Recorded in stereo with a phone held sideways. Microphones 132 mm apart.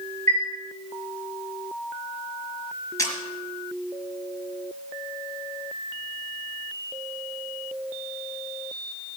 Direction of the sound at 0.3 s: 60° right (ahead or behind).